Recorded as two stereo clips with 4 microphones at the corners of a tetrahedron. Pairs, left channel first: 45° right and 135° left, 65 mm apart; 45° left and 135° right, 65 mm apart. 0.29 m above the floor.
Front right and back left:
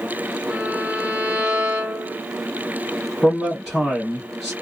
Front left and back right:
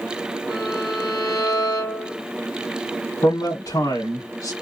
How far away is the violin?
About 2.5 m.